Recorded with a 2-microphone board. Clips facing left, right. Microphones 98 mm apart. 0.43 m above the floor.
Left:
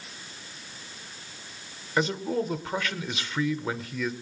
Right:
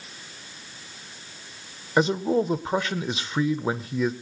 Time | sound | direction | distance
2.0 | a man speaking | 25° right (ahead or behind) | 0.9 m